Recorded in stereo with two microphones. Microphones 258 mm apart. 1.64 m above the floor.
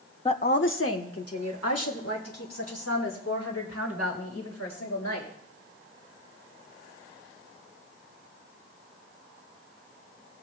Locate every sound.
0.2 s a woman speaking: 20° left (ahead or behind), 0.6 m; by 5.3 s 75° left (ahead or behind), 6 m